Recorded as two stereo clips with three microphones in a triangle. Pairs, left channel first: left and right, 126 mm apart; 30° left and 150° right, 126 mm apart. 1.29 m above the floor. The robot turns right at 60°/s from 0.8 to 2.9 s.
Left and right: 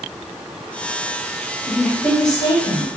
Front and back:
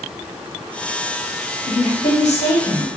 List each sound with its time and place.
1.7 s a woman speaking: straight ahead, 0.9 m; by 2.9 s 70° left, 0.9 m